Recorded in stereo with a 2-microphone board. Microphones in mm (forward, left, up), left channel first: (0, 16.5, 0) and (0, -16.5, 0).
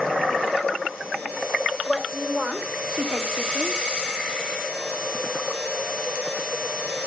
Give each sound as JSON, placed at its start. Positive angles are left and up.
{"t": 1.9, "sound": "a woman speaking", "side_deg": -15, "distance_m": 2.5}